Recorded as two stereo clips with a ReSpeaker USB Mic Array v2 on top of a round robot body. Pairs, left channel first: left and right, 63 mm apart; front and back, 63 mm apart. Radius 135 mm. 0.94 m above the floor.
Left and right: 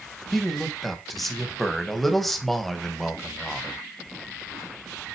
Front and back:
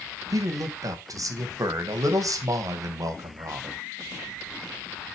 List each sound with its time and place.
0.3 s a man speaking: straight behind, 1.4 m